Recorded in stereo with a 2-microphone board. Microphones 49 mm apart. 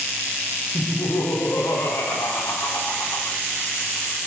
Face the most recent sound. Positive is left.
turn(degrees=80)